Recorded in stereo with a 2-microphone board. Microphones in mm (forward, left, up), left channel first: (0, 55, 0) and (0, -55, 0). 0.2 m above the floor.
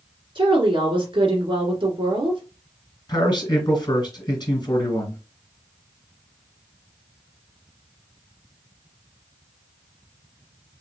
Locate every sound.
0.3 s a woman speaking: 50° right (ahead or behind), 2 m
3.1 s a man speaking: 40° left (ahead or behind), 2 m